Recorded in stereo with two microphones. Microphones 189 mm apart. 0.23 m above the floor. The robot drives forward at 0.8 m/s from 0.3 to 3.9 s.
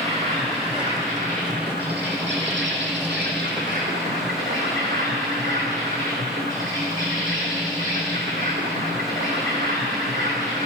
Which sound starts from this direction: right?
An insect, at 0.0 s.